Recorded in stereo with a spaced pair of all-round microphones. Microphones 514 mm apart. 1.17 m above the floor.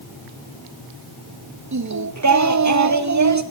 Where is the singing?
35° right (ahead or behind), 0.6 m.